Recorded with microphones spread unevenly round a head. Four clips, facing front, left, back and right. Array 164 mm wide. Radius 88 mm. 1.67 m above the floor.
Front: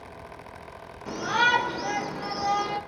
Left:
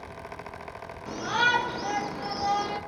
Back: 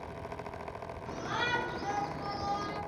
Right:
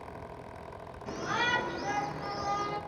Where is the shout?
20° left, 5.5 m; by 2.8 s 35° left, 6 m.